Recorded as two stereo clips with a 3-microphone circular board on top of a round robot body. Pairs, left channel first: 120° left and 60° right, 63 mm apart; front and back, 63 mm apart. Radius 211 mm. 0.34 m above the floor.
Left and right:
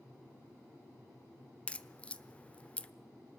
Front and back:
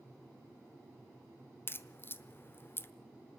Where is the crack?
50° left, 1.1 m.